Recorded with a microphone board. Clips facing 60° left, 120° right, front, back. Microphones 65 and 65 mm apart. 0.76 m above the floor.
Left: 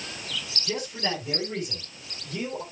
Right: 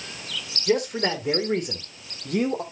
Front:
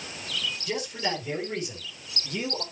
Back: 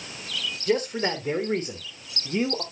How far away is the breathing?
No breathing in this recording.